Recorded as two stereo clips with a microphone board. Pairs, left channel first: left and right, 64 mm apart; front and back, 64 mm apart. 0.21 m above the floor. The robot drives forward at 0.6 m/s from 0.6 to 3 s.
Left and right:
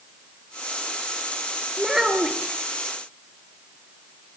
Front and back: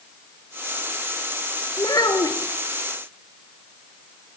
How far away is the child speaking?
About 3 m.